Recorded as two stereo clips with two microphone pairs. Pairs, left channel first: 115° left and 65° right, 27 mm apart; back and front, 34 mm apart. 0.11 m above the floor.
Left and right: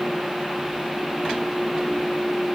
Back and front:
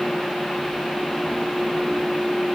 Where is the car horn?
No car horn in this recording.